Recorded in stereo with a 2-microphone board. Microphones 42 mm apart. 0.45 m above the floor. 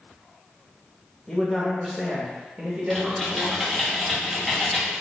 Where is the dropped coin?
No dropped coin in this recording.